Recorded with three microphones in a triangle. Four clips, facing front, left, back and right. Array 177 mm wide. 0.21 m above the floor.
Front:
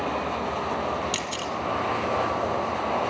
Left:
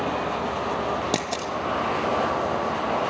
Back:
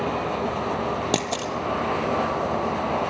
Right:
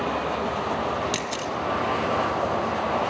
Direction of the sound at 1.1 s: 150° left.